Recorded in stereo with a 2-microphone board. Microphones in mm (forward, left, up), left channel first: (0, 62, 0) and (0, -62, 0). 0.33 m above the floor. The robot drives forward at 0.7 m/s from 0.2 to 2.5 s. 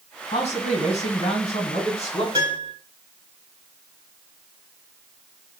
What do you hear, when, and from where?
0.3 s a man speaking: 65° left (ahead or behind), 2.5 m; by 2.2 s 60° left (ahead or behind), 2.5 m
2.3 s a piano: 30° right (ahead or behind), 2.0 m